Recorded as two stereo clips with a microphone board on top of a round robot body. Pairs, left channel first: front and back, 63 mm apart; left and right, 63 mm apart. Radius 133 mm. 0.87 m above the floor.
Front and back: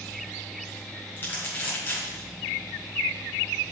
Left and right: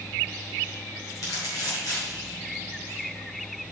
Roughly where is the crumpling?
Ahead left.